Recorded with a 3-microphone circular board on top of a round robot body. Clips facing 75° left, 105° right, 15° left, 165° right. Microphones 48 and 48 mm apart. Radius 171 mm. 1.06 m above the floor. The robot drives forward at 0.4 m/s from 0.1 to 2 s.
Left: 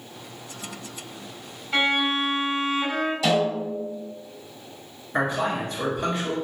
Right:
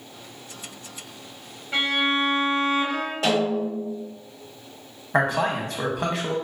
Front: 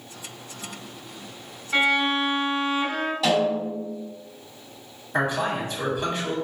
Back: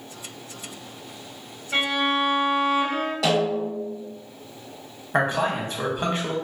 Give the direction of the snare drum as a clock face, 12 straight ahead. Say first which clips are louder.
Right 2 dB, front 1 dB; 5 o'clock.